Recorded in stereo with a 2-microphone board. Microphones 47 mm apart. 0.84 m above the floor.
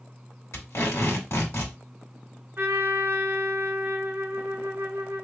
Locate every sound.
0.5 s tape being pulled: 80° left, 2 m
2.6 s a trumpet: 55° right (ahead or behind), 0.7 m